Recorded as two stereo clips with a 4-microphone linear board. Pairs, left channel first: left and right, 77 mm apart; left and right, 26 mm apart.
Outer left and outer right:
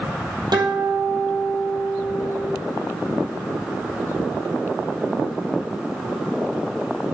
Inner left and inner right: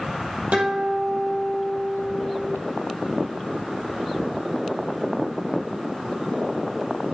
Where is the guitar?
65° right (ahead or behind), 3 m.